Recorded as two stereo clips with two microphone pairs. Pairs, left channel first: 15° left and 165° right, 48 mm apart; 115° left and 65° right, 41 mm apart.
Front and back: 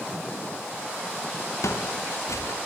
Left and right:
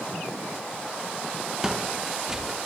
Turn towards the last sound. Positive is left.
turn(degrees=15)